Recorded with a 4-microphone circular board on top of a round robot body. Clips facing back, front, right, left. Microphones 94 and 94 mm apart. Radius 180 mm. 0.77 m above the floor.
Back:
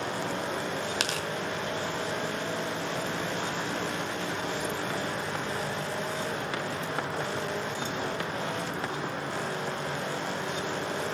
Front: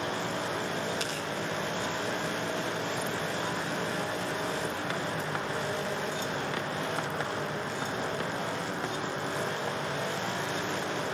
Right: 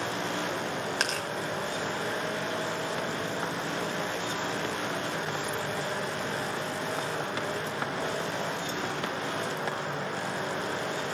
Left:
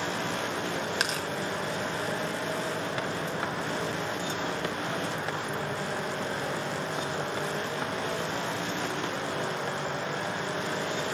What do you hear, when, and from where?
1.0 s tearing paper: 175° left, 0.9 m